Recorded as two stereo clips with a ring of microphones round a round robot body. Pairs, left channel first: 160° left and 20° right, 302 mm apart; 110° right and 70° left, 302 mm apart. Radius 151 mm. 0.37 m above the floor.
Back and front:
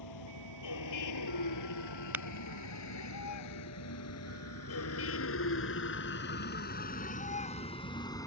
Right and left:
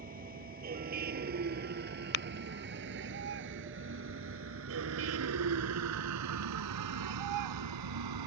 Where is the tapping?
105° right.